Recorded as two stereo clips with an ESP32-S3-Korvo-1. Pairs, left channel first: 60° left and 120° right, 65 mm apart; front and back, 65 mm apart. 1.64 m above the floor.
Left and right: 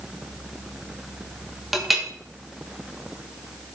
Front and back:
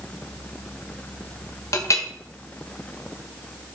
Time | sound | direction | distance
1.7 | a clink | 35° right | 1.3 m